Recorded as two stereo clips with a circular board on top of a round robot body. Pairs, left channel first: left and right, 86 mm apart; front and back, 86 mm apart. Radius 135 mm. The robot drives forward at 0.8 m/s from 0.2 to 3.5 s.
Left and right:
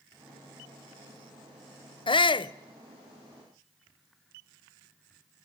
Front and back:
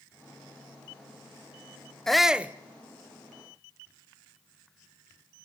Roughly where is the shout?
Left.